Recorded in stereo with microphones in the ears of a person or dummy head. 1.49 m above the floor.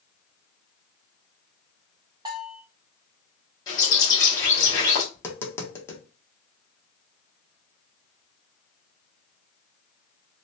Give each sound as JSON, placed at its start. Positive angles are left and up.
{"t": 2.2, "sound": "a bell", "side_deg": -25, "distance_m": 0.9}
{"t": 3.7, "sound": "a bird", "side_deg": 25, "distance_m": 1.6}
{"t": 5.1, "sound": "tapping", "side_deg": 20, "distance_m": 0.8}